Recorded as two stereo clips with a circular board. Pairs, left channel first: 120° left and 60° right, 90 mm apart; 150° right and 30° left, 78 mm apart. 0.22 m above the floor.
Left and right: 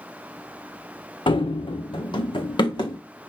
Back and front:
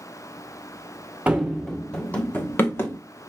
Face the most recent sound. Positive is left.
turn(degrees=155)